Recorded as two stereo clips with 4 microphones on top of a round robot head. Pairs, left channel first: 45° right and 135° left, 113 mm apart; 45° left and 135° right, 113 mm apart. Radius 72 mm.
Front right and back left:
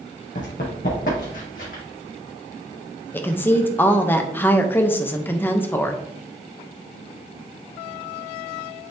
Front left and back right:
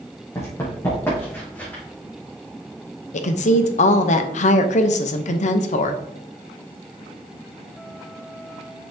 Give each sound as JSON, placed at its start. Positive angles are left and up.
{"t": 0.3, "sound": "running footsteps", "azimuth_deg": -25, "distance_m": 2.5}
{"t": 3.1, "sound": "a woman speaking", "azimuth_deg": 30, "distance_m": 0.8}